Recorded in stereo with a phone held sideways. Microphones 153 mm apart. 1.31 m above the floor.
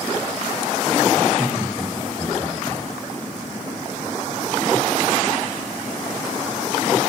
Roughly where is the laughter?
Centre.